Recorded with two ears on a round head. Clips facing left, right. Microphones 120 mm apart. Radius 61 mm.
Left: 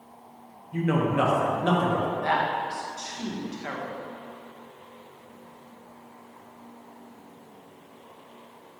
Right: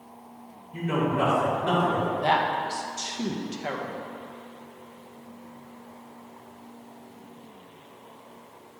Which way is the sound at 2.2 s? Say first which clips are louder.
Right 2 dB; 30° right (ahead or behind).